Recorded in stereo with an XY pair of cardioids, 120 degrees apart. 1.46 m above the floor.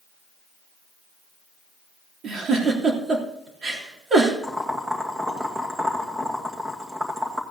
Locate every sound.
2.2 s a giggle: 40° right, 3.5 m
4.4 s boiling: 15° right, 2.5 m